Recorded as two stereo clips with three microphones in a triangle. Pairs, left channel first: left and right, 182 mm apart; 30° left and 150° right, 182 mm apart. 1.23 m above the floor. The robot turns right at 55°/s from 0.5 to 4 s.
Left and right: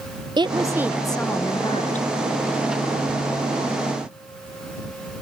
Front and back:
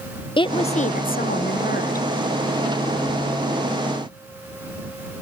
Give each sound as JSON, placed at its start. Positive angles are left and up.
{"t": 0.4, "sound": "a woman speaking", "azimuth_deg": -30}